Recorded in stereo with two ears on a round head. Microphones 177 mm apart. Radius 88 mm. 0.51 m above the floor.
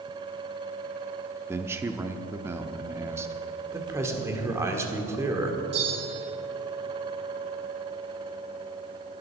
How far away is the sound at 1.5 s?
About 0.7 m.